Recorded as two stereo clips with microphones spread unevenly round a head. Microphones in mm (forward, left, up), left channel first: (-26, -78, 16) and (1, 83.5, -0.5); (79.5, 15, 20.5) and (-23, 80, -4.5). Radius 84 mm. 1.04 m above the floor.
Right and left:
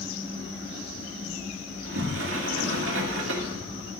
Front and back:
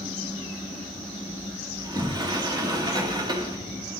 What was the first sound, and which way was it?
A sliding door, 90° left.